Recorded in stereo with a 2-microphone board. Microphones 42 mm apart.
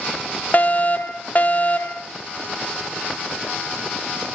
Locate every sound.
0.5 s a fire alarm: 45° left (ahead or behind), 1.5 m